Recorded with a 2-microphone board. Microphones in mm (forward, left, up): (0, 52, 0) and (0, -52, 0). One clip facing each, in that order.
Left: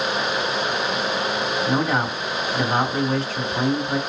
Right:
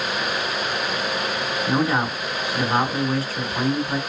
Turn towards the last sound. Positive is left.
turn(degrees=-5)  # may be behind; listen again after turning